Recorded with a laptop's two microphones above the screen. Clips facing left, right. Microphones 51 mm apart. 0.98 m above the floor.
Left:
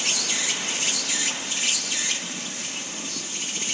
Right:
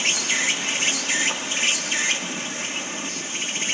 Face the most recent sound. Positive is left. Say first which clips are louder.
# right 5 dB
turn(degrees=-50)  # may be behind; listen again after turning